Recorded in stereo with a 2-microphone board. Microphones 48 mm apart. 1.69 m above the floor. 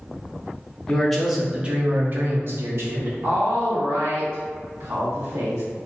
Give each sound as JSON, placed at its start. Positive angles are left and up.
{"t": 0.9, "sound": "a man speaking", "side_deg": 10, "distance_m": 0.7}
{"t": 3.2, "sound": "a woman speaking", "side_deg": -65, "distance_m": 1.3}